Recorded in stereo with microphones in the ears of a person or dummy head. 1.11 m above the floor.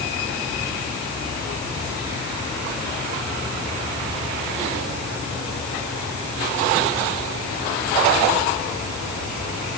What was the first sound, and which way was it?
Only background noise.